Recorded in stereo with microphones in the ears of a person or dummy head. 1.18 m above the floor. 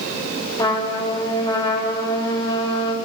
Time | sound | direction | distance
0.6 | a trumpet | 30° left (ahead or behind) | 4.5 m